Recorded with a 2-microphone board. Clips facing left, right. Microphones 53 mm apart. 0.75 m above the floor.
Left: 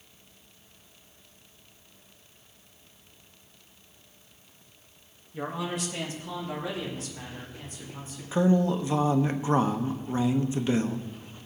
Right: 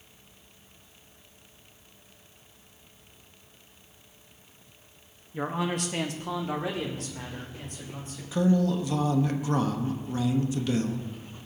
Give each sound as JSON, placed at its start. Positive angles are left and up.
{"t": 5.3, "sound": "a man speaking", "side_deg": -25, "distance_m": 0.8}
{"t": 8.3, "sound": "a man speaking", "side_deg": 30, "distance_m": 0.7}